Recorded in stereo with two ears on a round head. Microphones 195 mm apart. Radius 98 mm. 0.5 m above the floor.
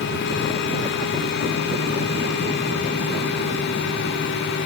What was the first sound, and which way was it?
Only background noise.